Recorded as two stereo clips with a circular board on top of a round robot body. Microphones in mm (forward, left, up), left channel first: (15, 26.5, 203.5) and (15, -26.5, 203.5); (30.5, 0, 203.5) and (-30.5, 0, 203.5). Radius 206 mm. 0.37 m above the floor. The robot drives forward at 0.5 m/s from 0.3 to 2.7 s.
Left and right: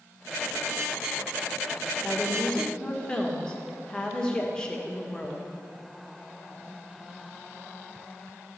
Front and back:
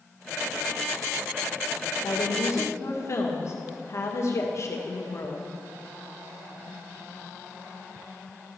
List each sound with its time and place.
2.0 s a woman speaking: 15° left, 2 m; by 5.4 s 20° left, 1.9 m